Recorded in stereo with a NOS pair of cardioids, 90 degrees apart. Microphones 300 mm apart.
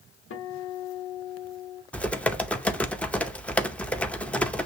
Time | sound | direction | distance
0.3 | a guitar | 40° left | 1.4 m
1.9 | typing on a keyboard | 5° left | 0.6 m